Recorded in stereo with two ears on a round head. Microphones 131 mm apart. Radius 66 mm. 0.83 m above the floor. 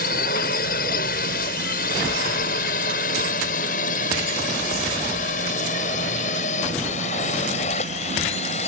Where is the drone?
70° left (ahead or behind); by 8.7 s 45° left (ahead or behind).